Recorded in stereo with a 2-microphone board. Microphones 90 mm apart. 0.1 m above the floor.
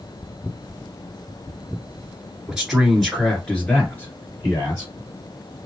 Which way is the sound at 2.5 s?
10° right (ahead or behind).